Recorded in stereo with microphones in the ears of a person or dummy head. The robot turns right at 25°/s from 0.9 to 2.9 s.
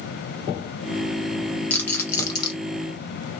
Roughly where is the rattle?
Centre.